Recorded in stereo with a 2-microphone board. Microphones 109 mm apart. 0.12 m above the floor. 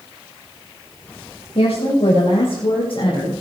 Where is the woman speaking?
75° left (ahead or behind), 7 m; by 3.3 s 55° left (ahead or behind), 6 m.